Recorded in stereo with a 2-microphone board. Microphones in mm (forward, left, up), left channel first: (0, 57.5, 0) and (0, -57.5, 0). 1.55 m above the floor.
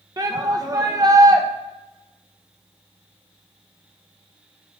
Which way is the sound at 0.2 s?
35° right (ahead or behind).